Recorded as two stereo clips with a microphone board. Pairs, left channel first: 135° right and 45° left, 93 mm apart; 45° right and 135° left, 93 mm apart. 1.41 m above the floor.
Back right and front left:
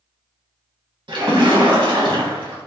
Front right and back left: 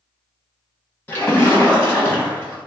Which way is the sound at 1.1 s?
25° left.